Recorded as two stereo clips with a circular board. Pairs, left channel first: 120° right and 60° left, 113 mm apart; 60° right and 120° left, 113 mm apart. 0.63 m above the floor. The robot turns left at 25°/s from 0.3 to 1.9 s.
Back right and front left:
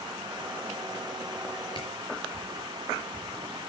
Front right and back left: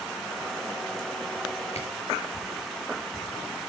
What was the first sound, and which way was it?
A camera shutter, 75° right.